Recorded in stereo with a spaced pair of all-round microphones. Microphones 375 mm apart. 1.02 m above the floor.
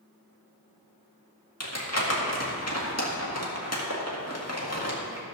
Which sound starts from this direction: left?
Crumpling, at 1.6 s.